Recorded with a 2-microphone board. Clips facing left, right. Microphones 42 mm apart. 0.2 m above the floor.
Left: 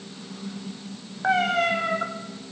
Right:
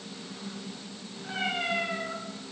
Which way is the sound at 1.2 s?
70° left (ahead or behind).